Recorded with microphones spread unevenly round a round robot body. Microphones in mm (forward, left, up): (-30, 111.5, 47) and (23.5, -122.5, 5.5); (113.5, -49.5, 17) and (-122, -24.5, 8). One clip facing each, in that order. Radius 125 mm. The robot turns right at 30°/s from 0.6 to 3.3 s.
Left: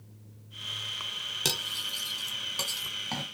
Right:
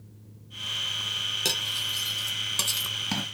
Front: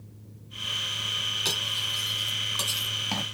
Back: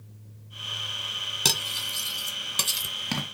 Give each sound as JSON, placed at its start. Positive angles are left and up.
{"t": 1.4, "sound": "cutlery clinking", "azimuth_deg": -170, "distance_m": 2.0}